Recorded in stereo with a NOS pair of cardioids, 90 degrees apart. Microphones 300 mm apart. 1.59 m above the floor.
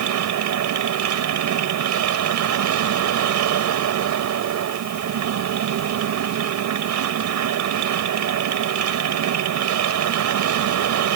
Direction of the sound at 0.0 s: 70° right.